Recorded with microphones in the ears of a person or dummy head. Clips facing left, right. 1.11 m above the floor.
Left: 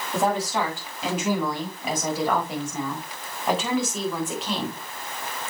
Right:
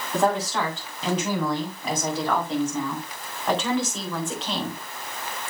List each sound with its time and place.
0.1 s a woman speaking: 5° left (ahead or behind), 6 m; by 4.8 s centre (ahead or behind), 3.5 m